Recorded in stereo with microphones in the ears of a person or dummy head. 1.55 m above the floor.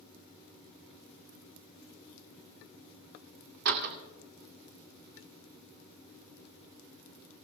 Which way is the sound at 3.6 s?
65° right (ahead or behind).